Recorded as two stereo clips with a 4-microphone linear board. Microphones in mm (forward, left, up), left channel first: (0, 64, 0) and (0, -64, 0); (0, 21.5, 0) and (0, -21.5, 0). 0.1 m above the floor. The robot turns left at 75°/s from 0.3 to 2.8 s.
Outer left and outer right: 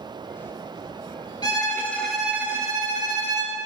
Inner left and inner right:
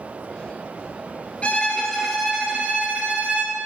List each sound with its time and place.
1.4 s a violin: 55° left, 1.7 m; by 3.6 s 50° right, 1.7 m